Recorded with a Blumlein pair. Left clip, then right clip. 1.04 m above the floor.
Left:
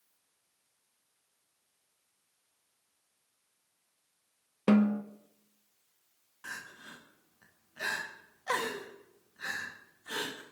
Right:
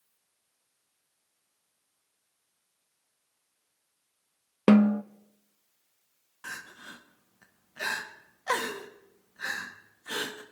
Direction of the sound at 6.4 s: 15° right.